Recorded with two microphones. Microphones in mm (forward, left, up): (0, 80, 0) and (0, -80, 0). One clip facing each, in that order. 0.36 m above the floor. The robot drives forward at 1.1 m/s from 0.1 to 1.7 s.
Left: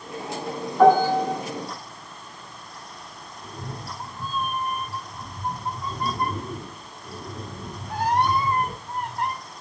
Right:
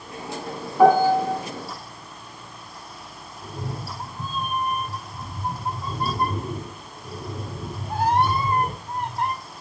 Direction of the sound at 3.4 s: 25° right (ahead or behind).